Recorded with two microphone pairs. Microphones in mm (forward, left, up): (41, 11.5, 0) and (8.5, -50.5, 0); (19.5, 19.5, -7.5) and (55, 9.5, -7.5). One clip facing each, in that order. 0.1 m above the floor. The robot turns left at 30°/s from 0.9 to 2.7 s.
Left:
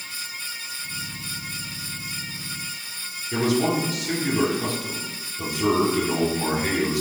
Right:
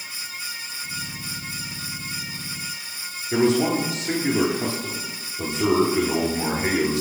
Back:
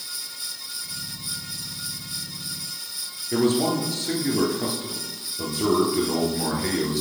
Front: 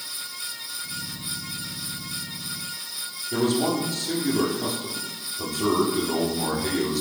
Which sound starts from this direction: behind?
A man speaking, at 3.3 s.